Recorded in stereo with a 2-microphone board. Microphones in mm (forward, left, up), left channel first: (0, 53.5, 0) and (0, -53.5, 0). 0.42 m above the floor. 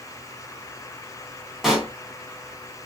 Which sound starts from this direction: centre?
A pop, at 1.6 s.